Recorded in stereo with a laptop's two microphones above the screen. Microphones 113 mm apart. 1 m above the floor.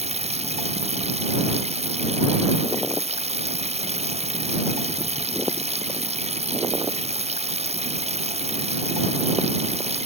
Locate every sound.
0.0 s running water: 70° right (ahead or behind)